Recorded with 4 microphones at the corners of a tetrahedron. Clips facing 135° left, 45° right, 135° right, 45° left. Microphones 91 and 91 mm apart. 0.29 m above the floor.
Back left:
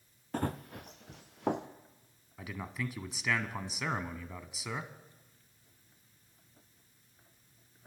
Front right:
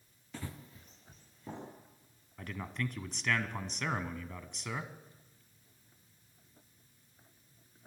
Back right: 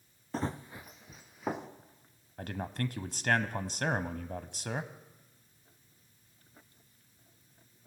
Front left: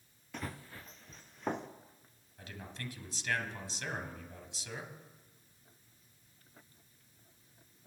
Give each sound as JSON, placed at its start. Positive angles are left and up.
{"t": 0.3, "sound": "running footsteps", "azimuth_deg": 175, "distance_m": 0.8}
{"t": 2.4, "sound": "a man speaking", "azimuth_deg": -140, "distance_m": 1.6}